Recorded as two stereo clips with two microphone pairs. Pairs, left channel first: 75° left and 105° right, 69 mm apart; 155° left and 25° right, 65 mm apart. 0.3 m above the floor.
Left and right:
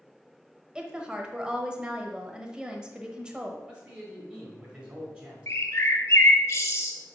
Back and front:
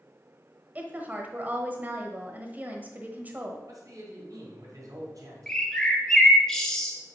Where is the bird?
85° left, 0.8 m.